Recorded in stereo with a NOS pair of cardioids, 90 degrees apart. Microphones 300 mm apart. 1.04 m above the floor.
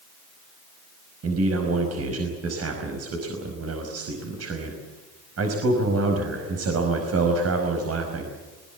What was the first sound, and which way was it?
A man speaking, 50° right.